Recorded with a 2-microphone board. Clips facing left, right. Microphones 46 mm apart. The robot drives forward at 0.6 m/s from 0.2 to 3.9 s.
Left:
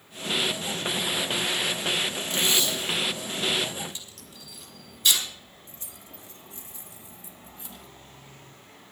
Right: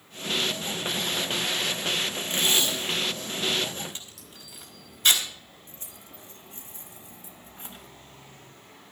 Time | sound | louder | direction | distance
2.3 | tape being pulled | right 1 dB | 40° right (ahead or behind) | 4 m
4.2 | a crack | left 1 dB | 50° left (ahead or behind) | 6.5 m
5.7 | keys jangling | even | 35° right (ahead or behind) | 1.4 m